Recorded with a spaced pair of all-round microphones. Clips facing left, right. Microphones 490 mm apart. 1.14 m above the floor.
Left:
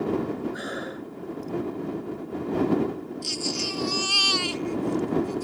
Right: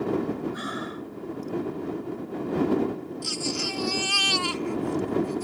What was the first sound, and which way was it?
Breathing, 20° right (ahead or behind).